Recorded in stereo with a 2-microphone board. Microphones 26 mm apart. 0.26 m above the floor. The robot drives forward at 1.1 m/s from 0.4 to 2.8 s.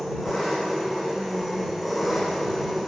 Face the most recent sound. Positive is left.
turn(degrees=0)  # may be behind; listen again after turning